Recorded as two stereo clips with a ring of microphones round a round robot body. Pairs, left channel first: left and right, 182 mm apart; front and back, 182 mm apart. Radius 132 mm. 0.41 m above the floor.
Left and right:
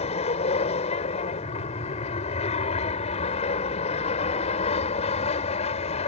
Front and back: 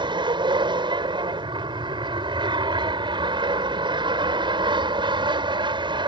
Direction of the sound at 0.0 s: 130° left.